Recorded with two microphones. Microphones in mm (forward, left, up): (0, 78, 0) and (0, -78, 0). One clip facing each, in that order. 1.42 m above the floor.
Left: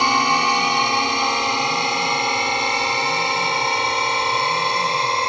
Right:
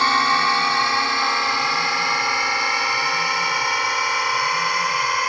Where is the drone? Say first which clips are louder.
Left 1 dB; 15° left (ahead or behind); by 5.3 s 25° left (ahead or behind).